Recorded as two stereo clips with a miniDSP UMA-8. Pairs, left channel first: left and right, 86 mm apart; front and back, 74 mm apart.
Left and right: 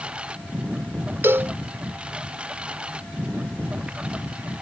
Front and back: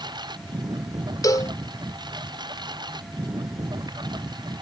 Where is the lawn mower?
170° right.